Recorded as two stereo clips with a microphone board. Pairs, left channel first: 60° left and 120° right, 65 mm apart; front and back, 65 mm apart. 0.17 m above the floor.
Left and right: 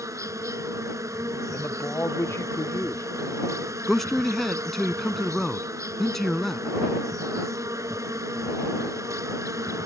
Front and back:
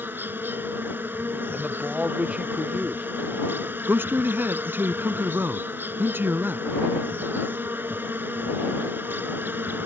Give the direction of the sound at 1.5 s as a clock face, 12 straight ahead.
8 o'clock.